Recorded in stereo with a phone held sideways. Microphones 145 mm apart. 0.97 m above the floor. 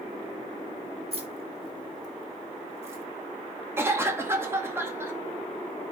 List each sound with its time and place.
1.1 s keys jangling: 45° right (ahead or behind), 2 m; by 3.0 s 15° right (ahead or behind), 2.5 m
3.8 s a cough: 15° right (ahead or behind), 1.9 m